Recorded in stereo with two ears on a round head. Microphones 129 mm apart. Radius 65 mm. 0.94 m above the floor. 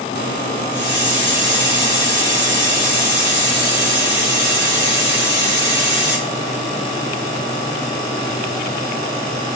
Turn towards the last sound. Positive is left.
turn(degrees=25)  # may be behind; listen again after turning